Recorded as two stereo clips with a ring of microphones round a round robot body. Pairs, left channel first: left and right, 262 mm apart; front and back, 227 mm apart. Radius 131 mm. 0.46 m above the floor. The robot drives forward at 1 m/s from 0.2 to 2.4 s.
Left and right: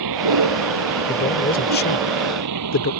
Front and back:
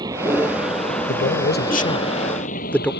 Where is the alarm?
I don't hear an alarm.